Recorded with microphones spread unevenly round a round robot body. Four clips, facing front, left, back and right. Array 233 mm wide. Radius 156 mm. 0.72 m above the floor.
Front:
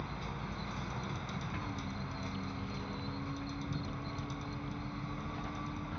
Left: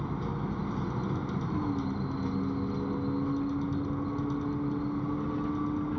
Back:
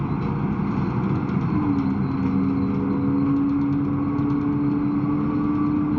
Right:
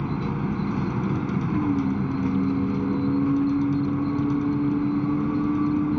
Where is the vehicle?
140° right.